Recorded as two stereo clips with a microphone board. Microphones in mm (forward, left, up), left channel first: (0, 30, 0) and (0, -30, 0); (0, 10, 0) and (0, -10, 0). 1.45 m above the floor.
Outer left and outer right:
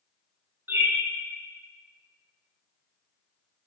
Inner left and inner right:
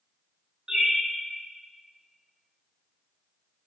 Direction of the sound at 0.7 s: 35° right (ahead or behind).